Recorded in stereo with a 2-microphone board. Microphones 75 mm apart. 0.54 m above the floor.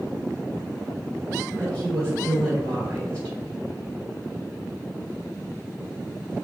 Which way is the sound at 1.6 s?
30° right (ahead or behind).